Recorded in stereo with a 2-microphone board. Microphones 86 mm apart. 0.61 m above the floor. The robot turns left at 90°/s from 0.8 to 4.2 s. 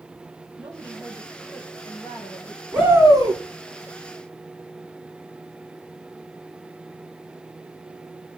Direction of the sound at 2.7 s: 10° right.